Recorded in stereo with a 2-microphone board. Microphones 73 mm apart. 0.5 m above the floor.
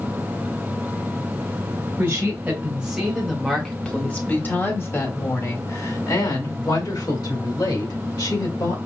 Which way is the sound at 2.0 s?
25° right (ahead or behind).